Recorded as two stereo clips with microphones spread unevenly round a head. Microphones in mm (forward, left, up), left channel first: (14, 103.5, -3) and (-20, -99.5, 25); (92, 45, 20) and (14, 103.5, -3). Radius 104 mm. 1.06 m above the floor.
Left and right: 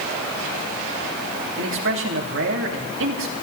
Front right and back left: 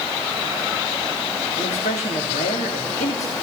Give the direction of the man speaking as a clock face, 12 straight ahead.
2 o'clock.